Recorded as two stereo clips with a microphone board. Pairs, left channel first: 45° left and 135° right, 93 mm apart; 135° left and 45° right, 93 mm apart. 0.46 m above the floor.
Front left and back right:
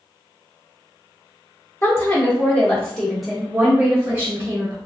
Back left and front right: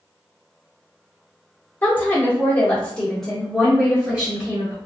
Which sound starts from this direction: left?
A woman speaking, at 1.8 s.